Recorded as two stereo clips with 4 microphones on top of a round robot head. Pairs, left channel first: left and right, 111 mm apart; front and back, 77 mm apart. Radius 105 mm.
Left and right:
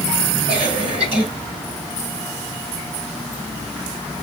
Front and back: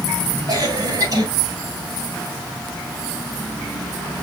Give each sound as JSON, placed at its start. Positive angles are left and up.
{"t": 0.5, "sound": "a cough", "azimuth_deg": -130, "distance_m": 7.5}